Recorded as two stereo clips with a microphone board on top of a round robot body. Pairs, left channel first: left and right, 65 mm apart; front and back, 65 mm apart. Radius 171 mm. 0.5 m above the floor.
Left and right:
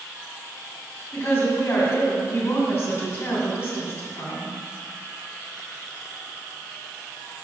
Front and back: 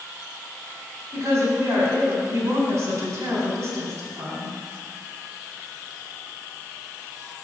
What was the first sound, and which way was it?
A woman speaking, 145° left.